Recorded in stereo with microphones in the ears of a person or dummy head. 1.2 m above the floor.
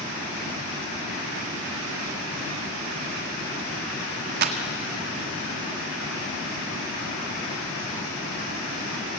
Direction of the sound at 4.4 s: 50° right (ahead or behind).